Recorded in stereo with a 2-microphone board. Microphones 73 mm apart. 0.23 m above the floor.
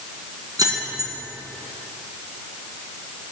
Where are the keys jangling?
60° right (ahead or behind), 1.9 m.